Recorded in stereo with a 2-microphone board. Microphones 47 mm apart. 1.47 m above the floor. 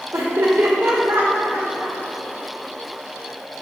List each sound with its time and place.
0.1 s laughter: 75° right (ahead or behind), 1.2 m; by 2.0 s 70° right (ahead or behind), 2 m